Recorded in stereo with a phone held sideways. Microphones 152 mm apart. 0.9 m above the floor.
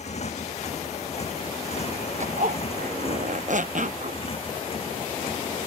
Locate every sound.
0.0 s a motorcycle: 45° left (ahead or behind); by 5.7 s 35° left (ahead or behind)
2.2 s a zipper: 55° right (ahead or behind)